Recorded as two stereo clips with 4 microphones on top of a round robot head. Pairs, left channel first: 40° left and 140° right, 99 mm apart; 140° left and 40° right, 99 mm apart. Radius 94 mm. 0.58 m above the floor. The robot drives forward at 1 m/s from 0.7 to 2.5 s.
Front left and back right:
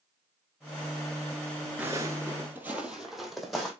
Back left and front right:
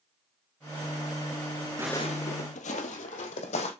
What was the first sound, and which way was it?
Footsteps, 75° right.